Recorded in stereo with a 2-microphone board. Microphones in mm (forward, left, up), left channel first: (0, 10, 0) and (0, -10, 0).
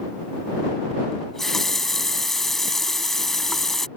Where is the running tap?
20° left (ahead or behind).